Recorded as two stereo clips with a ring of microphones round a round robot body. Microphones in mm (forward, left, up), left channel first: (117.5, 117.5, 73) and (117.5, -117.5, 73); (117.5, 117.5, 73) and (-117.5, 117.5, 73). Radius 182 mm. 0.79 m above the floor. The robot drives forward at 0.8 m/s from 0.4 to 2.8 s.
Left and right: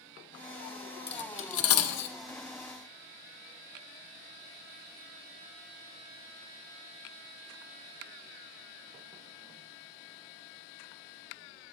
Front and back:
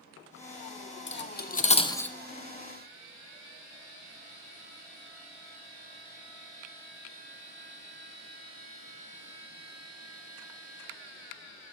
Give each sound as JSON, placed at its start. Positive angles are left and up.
{"t": 1.1, "sound": "cutlery clinking", "azimuth_deg": 40, "distance_m": 1.2}